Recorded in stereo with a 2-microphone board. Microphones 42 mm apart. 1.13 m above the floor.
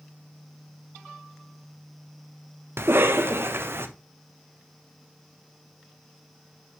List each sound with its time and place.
2.8 s a cough: 65° right (ahead or behind), 0.9 m